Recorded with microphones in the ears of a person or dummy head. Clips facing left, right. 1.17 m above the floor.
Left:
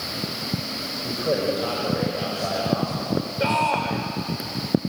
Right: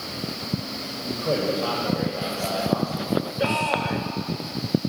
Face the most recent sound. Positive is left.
turn(degrees=-5)  # may be behind; listen again after turning